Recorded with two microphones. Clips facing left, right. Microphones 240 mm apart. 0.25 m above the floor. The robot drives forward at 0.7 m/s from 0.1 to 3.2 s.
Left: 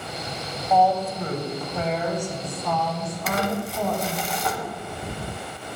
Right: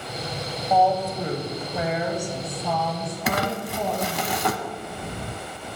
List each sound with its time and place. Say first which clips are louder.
0.7 s a woman speaking: even; 10° right (ahead or behind), 1.0 m
3.3 s crumpling: even; 70° right (ahead or behind), 0.6 m